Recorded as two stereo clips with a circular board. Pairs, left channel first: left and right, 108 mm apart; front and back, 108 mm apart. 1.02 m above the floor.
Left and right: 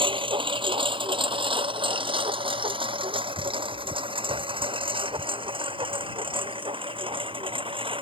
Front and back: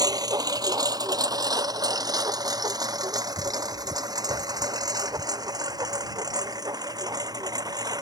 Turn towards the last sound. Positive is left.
turn(degrees=-125)